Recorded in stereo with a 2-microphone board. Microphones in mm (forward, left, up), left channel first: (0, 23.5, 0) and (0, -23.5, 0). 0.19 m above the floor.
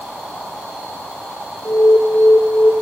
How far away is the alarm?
About 1.5 m.